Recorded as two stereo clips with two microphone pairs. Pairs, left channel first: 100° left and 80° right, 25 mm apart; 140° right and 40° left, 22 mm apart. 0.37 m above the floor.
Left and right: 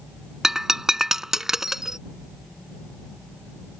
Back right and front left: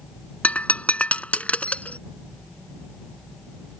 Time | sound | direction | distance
0.4 | breaking glass | 150° right | ?